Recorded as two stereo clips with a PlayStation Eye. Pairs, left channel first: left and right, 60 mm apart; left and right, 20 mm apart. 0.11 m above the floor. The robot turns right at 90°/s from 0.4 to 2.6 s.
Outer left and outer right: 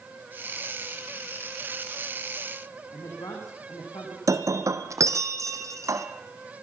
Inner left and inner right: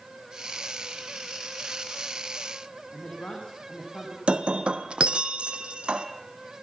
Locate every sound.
2.9 s a man speaking: 75° left (ahead or behind), 7 m
4.3 s breaking glass: 60° right (ahead or behind), 1.9 m